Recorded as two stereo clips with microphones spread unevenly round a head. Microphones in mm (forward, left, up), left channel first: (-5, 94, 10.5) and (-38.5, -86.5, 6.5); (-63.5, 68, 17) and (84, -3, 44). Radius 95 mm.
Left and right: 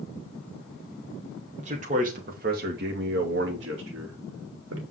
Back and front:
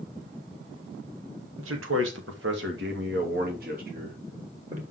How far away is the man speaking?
About 2 m.